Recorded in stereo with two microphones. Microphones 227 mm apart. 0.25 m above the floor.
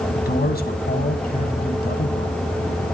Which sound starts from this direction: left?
A man speaking, at 0.1 s.